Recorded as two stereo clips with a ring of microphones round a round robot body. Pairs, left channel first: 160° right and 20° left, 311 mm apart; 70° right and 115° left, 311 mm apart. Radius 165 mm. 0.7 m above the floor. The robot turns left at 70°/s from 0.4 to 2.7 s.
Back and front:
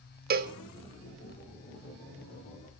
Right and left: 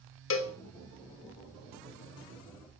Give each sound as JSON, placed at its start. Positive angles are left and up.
{"t": 0.3, "sound": "a cowbell", "azimuth_deg": -30, "distance_m": 1.5}